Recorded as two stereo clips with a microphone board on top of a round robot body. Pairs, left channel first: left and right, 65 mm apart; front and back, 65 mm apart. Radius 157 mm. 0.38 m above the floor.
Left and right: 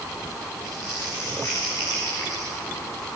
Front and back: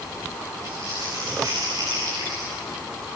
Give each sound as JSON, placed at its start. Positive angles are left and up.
{"t": 0.6, "sound": "crumpling", "azimuth_deg": 140, "distance_m": 7.5}